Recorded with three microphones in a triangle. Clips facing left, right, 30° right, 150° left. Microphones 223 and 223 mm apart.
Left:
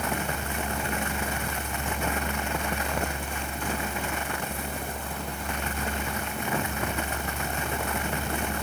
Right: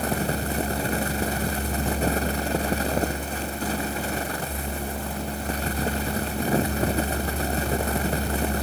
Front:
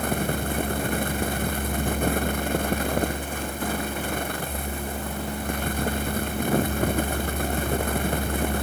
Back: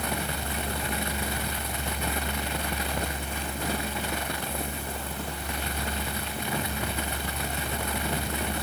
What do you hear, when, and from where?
Only background noise.